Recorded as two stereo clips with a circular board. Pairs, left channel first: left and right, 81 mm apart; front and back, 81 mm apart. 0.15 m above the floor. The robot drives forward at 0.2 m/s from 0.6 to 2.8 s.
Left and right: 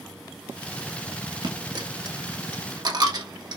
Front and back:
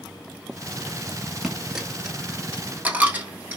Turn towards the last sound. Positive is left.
turn(degrees=-115)